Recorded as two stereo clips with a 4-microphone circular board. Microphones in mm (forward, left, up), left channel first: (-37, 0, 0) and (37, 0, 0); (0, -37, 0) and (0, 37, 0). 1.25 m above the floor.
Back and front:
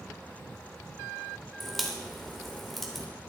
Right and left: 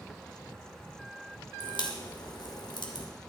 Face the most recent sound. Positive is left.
turn(degrees=-90)